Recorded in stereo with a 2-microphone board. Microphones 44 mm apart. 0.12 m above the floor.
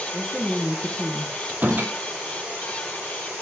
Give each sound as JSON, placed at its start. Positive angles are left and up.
{"t": 0.1, "sound": "a woman speaking", "side_deg": -5, "distance_m": 4.5}
{"t": 1.5, "sound": "a door slam", "side_deg": -45, "distance_m": 2.5}